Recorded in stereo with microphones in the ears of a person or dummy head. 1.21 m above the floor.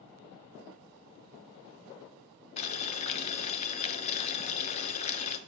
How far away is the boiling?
About 0.7 m.